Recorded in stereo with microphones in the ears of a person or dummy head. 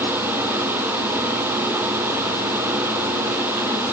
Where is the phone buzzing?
I don't hear a phone buzzing.